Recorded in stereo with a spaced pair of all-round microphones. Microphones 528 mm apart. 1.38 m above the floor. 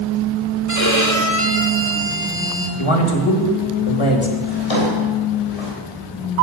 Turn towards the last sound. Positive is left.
turn(degrees=80)